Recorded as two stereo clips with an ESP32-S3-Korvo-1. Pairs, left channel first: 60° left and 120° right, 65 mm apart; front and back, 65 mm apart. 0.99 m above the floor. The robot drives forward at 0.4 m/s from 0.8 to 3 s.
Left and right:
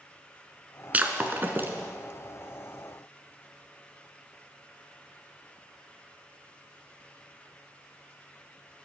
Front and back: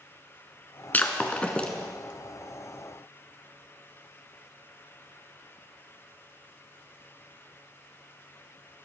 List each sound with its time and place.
0.9 s breaking glass: 60° right, 1.5 m; by 1.7 s 75° right, 1.4 m